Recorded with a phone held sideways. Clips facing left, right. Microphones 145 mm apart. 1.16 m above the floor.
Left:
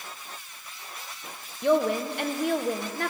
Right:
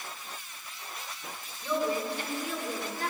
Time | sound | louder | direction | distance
1.6 | a woman speaking | left 7 dB | 70° left (ahead or behind) | 0.8 m